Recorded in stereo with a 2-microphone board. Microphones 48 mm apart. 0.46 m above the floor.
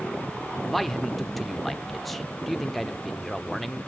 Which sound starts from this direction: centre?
A man speaking, at 0.7 s.